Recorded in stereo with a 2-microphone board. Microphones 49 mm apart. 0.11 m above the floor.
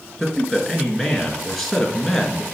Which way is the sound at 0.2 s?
5° left (ahead or behind).